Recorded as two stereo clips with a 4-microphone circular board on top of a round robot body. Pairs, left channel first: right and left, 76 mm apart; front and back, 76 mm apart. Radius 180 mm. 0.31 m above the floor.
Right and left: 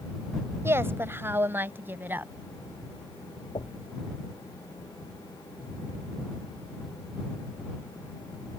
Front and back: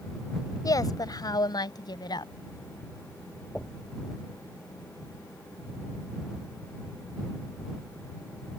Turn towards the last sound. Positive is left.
turn(degrees=-85)